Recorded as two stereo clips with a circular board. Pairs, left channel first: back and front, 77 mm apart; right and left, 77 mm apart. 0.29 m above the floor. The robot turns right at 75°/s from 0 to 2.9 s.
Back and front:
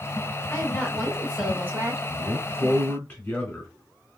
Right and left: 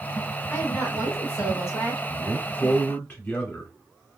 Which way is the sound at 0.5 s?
140° right.